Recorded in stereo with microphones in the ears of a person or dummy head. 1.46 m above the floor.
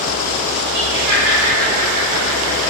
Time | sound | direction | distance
0.7 | laughter | 65° right (ahead or behind) | 3 m